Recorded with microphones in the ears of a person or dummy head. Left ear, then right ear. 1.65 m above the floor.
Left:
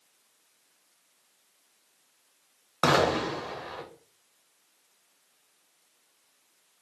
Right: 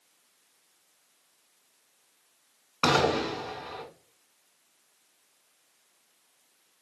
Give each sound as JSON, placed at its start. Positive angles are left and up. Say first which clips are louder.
{"t": 2.8, "sound": "an explosion", "louder": "left 1 dB", "side_deg": 30, "distance_m": 0.7}